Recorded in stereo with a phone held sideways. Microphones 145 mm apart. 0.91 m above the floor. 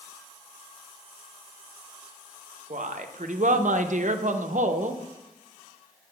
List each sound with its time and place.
2.7 s a woman speaking: 60° right (ahead or behind), 0.5 m